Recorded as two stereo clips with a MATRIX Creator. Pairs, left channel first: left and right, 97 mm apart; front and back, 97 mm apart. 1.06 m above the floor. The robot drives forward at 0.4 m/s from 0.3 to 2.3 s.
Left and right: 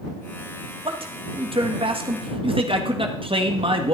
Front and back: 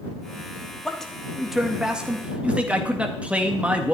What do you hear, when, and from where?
0.8 s a man speaking: 85° right, 1.8 m; by 3.9 s 105° right, 1.8 m